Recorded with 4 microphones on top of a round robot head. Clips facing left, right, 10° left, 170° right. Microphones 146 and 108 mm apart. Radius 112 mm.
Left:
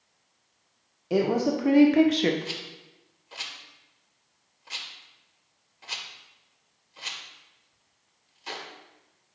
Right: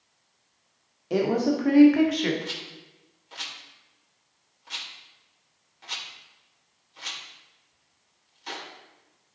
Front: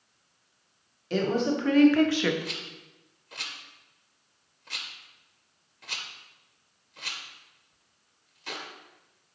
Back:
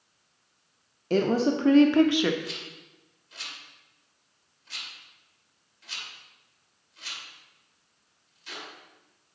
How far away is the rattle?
About 1.8 m.